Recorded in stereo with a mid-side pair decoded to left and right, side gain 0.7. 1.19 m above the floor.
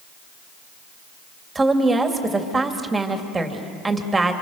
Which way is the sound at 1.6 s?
15° right.